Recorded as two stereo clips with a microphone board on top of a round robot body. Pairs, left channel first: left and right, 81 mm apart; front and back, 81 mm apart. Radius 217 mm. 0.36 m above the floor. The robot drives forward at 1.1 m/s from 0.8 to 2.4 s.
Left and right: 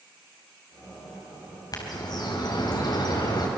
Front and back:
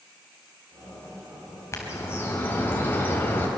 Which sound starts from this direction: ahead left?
A bird, at 1.7 s.